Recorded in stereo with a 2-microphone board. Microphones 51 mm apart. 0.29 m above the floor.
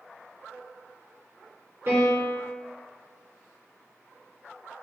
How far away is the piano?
About 2.0 m.